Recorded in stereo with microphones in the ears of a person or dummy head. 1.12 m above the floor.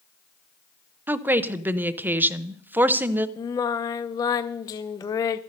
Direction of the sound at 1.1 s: 10° right (ahead or behind).